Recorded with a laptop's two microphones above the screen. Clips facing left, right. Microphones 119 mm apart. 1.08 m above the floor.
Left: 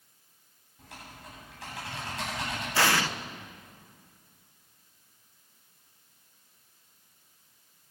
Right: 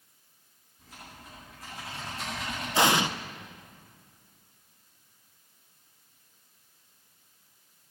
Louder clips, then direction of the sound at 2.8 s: Right 3 dB; 20° right (ahead or behind).